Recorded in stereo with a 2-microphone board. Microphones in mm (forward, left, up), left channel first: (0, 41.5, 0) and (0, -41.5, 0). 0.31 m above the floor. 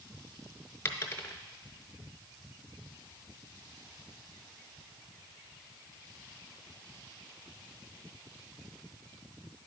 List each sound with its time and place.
0.8 s a dropped coin: 30° left (ahead or behind), 0.7 m